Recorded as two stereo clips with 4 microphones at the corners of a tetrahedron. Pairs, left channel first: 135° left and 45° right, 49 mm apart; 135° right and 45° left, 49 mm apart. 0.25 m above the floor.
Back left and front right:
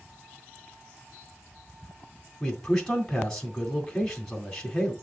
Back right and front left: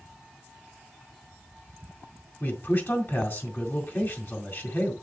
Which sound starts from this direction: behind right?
A man speaking, at 2.4 s.